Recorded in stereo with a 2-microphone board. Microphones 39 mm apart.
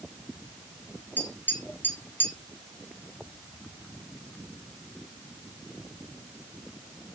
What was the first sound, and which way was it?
Tapping, 65° left (ahead or behind).